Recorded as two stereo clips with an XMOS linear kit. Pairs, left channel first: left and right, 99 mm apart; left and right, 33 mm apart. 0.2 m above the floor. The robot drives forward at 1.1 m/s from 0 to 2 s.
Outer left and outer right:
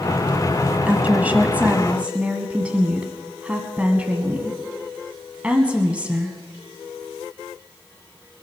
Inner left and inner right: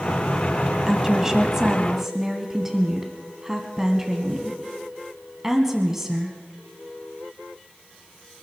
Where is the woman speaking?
15° right (ahead or behind), 1.3 m.